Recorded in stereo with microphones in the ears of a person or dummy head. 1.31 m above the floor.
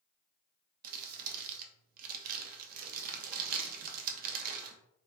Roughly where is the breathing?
I don't hear breathing.